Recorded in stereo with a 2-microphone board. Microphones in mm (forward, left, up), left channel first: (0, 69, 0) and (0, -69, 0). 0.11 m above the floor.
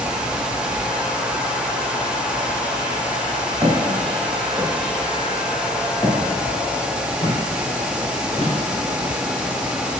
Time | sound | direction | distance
3.6 | footsteps | 30° right (ahead or behind) | 2.5 m